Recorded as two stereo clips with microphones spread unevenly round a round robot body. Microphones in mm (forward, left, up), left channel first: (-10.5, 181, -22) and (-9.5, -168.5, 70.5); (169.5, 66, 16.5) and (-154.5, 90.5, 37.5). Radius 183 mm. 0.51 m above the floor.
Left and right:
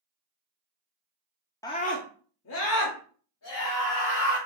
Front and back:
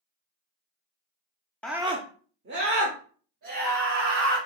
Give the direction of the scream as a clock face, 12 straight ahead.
10 o'clock.